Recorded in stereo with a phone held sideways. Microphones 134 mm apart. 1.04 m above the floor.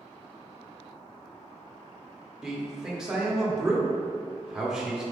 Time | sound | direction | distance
2.4 | a man speaking | 5° right (ahead or behind) | 0.9 m